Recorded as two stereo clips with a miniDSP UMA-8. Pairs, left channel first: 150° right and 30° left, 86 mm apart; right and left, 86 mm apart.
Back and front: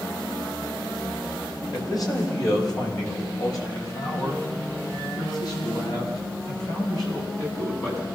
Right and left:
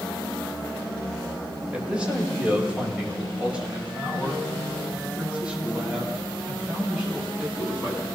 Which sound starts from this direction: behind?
A man speaking, at 1.7 s.